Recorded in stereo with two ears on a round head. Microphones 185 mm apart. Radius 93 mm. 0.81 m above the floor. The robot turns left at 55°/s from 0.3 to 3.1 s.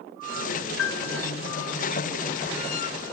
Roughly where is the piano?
Left.